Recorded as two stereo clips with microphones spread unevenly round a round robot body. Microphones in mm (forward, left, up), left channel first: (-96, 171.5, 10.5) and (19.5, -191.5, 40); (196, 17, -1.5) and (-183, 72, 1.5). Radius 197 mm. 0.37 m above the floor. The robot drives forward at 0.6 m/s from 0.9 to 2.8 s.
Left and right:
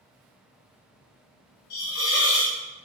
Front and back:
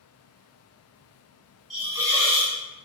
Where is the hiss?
80° left, 1.4 m; by 2.5 s 110° left, 1.5 m.